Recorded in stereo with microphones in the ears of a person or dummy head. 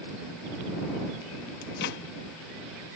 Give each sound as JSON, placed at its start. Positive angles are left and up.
{"t": 1.6, "sound": "a microwave", "side_deg": 60}